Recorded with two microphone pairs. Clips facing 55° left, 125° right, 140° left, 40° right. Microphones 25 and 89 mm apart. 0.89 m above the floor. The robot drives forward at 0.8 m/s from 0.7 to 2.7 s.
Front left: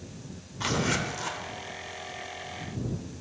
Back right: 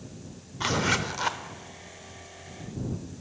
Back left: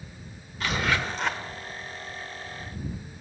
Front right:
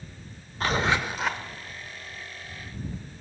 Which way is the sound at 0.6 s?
60° right.